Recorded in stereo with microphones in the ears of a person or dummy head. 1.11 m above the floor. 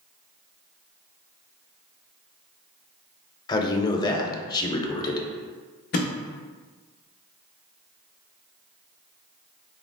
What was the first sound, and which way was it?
A man speaking, 20° left (ahead or behind).